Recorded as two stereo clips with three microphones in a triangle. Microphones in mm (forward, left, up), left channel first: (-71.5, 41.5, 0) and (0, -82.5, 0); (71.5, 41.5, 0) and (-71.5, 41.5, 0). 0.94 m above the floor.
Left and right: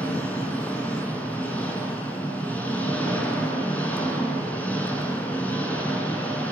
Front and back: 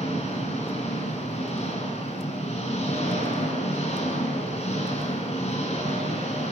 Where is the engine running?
40° left, 8 m.